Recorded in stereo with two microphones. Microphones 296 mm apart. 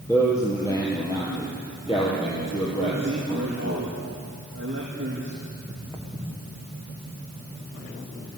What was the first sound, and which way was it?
A man speaking, 10° left (ahead or behind).